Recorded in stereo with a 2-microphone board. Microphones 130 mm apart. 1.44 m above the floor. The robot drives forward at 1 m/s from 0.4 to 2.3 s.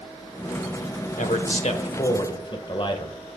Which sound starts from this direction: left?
A man speaking, at 1.2 s.